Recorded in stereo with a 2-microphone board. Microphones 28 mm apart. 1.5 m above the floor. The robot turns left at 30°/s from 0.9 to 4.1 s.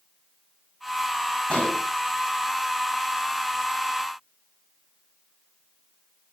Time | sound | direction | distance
1.5 | an explosion | 30° left (ahead or behind) | 6 m